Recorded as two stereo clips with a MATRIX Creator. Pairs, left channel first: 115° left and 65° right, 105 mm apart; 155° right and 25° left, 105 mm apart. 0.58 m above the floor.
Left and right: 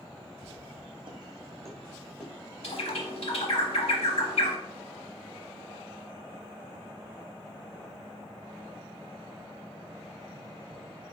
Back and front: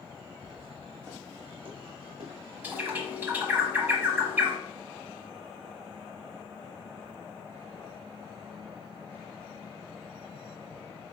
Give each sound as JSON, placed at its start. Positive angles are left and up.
{"t": 0.4, "sound": "footsteps", "azimuth_deg": -60, "distance_m": 1.6}
{"t": 2.6, "sound": "a bird", "azimuth_deg": 95, "distance_m": 1.0}